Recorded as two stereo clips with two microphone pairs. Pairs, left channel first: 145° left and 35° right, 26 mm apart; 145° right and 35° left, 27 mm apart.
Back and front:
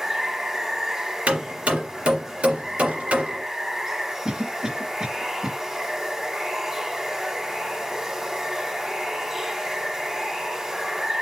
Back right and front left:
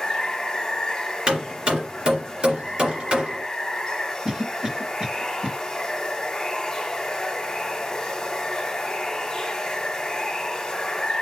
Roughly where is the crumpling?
No crumpling in this recording.